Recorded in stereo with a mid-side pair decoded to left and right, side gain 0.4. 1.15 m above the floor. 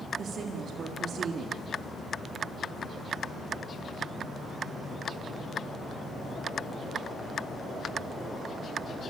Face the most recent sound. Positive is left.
turn(degrees=-60)